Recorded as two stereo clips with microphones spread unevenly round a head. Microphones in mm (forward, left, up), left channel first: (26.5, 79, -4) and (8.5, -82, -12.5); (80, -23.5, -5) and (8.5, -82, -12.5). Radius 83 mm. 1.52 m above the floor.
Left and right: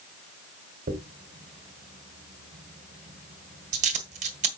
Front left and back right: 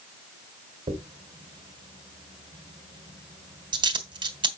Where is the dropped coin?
135° right, 1.8 m.